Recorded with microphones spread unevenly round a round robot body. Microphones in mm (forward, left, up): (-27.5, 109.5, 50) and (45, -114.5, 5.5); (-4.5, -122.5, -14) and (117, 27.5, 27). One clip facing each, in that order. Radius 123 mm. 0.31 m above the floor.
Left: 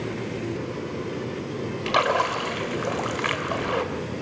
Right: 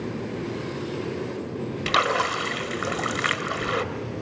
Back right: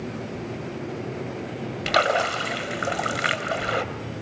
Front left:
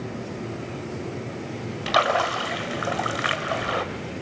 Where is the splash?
95° right, 1.9 m.